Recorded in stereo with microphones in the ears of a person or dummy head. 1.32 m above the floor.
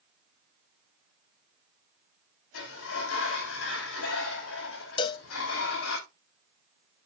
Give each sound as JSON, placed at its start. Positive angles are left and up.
{"t": 2.5, "sound": "a sliding door", "side_deg": 85, "distance_m": 3.5}
{"t": 5.0, "sound": "a cowbell", "side_deg": 25, "distance_m": 0.6}